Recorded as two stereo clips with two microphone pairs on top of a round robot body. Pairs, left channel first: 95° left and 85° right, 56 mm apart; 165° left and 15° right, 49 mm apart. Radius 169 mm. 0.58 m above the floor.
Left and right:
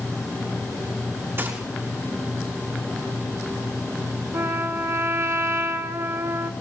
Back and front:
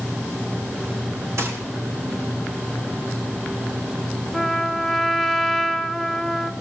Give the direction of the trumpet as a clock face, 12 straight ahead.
3 o'clock.